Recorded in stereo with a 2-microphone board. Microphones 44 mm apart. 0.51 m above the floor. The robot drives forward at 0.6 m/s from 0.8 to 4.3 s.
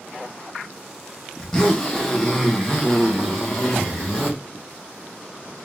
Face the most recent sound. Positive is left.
turn(degrees=5)  # may be behind; listen again after turning